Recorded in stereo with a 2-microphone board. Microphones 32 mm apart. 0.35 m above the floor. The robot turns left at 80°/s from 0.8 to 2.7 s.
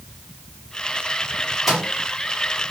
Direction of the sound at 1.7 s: 5° right (ahead or behind).